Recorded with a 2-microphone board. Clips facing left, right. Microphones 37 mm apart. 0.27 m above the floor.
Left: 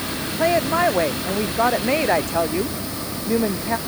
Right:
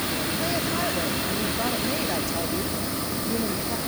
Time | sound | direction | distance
0.4 | a woman speaking | 40° left (ahead or behind) | ?